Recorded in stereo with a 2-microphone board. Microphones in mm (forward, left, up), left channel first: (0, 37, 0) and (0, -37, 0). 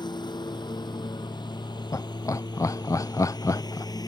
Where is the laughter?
45° left (ahead or behind).